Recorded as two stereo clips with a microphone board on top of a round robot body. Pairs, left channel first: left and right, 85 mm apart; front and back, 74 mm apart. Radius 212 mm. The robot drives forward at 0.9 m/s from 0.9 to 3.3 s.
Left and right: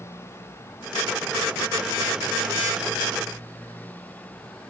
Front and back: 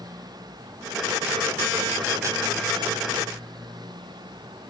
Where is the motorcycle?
150° left; by 4.7 s 160° left.